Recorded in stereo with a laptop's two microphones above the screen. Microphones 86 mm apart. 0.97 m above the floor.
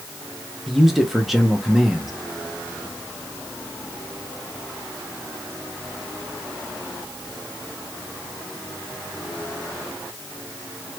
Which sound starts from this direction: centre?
A man speaking, at 0.7 s.